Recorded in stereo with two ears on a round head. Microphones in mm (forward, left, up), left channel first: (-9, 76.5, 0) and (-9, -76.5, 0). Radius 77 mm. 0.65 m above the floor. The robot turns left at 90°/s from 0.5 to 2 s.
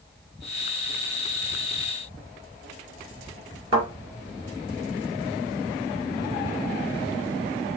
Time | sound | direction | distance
3.7 | a thud | 30° right (ahead or behind) | 3 m